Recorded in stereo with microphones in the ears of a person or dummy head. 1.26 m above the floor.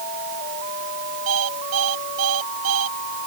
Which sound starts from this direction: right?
An alarm clock, at 1.3 s.